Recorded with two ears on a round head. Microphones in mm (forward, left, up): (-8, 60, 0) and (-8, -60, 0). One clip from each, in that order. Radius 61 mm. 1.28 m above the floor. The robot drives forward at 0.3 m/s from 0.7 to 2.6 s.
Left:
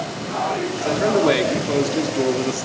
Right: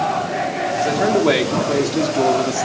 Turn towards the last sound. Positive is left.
turn(degrees=-5)  # may be behind; listen again after turning